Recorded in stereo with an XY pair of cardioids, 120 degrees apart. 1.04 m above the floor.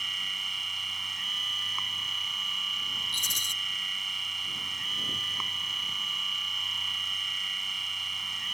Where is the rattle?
25° left.